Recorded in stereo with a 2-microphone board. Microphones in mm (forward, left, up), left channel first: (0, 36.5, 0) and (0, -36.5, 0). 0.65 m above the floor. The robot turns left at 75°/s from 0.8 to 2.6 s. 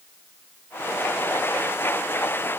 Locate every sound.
Only background noise.